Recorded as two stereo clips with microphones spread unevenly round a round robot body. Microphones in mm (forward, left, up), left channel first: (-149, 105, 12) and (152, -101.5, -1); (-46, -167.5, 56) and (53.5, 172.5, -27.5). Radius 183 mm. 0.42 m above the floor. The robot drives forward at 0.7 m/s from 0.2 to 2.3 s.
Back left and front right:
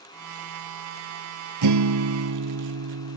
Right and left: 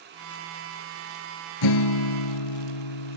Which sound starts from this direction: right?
A guitar, at 1.6 s.